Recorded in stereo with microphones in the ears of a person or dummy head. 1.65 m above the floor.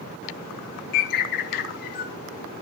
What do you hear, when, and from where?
0.9 s a bird: 50° left (ahead or behind), 1.8 m